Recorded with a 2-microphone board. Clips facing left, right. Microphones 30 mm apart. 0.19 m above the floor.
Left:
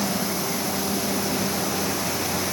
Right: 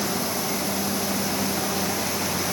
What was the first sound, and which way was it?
Only background noise.